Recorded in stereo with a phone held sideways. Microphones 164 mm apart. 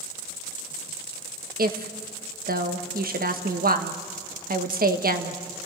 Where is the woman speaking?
65° right (ahead or behind), 1.4 m.